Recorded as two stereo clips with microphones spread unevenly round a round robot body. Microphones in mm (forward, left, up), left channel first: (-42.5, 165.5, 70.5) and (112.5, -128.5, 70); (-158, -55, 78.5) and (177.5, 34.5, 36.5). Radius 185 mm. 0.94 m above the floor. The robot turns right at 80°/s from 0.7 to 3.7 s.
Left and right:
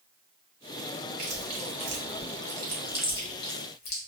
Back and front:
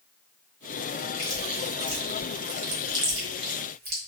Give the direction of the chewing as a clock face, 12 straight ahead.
4 o'clock.